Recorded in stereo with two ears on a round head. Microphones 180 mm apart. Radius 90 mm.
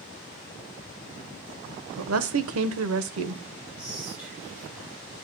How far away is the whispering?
About 3.5 m.